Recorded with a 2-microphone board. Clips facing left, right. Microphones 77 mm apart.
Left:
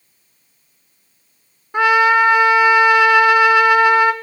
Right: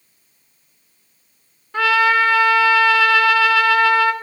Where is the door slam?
I don't hear a door slam.